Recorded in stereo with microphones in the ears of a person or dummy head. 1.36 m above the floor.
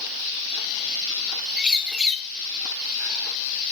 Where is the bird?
5° right (ahead or behind), 1.3 m.